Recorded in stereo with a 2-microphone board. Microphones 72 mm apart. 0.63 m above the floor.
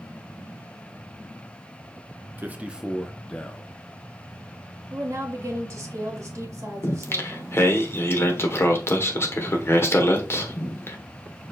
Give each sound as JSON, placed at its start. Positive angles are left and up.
{"t": 2.4, "sound": "a man speaking", "side_deg": -25, "distance_m": 0.7}
{"t": 4.9, "sound": "a woman speaking", "side_deg": -45, "distance_m": 1.5}
{"t": 6.8, "sound": "singing", "side_deg": 35, "distance_m": 0.9}